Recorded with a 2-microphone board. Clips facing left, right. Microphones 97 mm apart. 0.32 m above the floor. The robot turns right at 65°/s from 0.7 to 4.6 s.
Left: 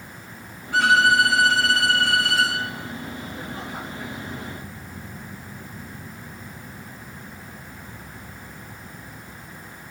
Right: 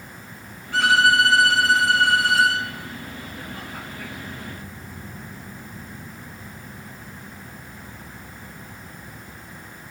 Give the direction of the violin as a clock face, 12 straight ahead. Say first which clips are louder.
Even; 6 o'clock.